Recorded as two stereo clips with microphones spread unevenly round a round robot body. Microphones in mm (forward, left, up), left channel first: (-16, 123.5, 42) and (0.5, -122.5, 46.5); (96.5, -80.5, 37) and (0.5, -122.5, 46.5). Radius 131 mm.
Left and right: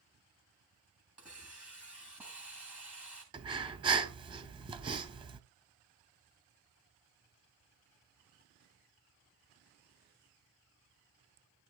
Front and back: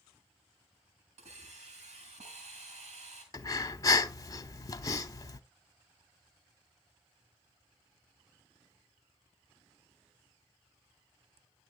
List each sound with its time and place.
1.2 s a hiss: 170° right, 5 m
3.3 s breathing: 20° right, 1.0 m